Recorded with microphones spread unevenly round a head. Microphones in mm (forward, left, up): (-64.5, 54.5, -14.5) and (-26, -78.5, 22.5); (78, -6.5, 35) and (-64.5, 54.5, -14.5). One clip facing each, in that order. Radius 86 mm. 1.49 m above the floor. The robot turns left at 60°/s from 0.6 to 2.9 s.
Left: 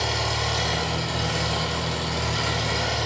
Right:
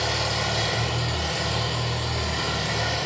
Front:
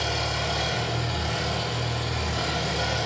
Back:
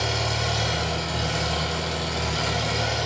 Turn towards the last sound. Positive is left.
turn(degrees=70)